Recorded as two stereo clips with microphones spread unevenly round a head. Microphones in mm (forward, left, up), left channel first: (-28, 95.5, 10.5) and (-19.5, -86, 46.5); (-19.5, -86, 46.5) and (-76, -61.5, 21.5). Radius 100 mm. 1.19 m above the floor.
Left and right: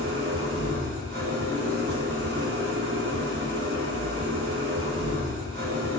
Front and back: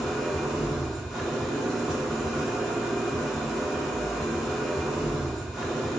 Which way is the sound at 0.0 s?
105° right.